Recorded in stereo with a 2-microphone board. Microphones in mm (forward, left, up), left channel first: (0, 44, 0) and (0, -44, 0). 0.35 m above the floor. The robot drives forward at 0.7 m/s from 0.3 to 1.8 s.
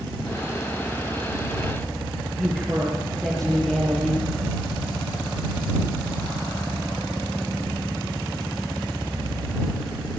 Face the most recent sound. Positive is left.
turn(degrees=0)  # may be behind; listen again after turning